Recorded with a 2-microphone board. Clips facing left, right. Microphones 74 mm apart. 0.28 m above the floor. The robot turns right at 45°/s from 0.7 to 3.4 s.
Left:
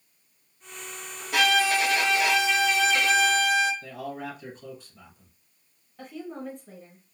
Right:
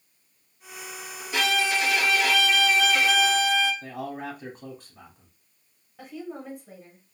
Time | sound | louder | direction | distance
1.3 | a violin | left 3 dB | 115° left | 1.2 m
3.8 | a man speaking | right 1 dB | 55° right (ahead or behind) | 1.6 m
6.0 | a woman speaking | even | 5° right (ahead or behind) | 1.1 m